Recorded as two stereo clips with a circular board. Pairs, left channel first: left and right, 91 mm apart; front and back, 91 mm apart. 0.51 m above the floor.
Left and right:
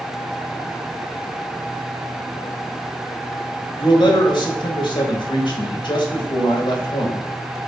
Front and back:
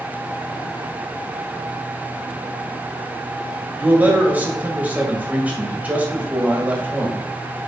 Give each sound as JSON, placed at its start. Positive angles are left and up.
{"t": 3.8, "sound": "a man speaking", "azimuth_deg": 110, "distance_m": 1.7}